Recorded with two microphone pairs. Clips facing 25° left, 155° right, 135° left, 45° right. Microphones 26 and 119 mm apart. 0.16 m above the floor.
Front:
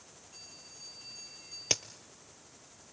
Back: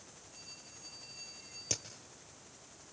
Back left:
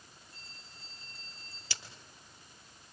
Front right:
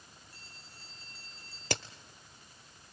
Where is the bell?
65° left, 6.5 m.